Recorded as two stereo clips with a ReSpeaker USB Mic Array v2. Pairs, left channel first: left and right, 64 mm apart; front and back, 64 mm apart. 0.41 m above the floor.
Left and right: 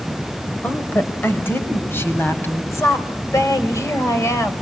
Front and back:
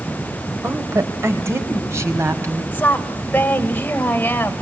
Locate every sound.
0.6 s a woman speaking: 145° left, 2 m; by 2.6 s 140° left, 3.5 m
2.7 s a woman speaking: 60° left, 2 m